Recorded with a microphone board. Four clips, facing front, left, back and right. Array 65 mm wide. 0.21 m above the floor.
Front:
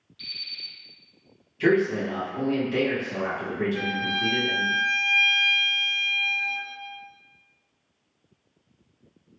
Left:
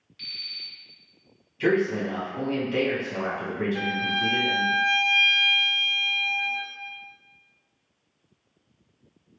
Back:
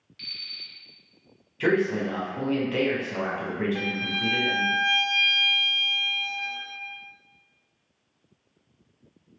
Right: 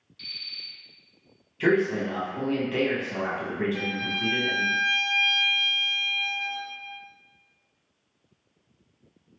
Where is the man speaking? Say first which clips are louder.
Even, front 2 dB; 140° right, 1.2 m.